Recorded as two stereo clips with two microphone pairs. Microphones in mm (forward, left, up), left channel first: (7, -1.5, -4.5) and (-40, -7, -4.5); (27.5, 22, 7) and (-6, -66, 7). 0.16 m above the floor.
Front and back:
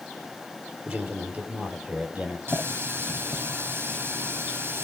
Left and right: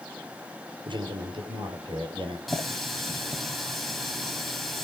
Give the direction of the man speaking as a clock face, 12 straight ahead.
4 o'clock.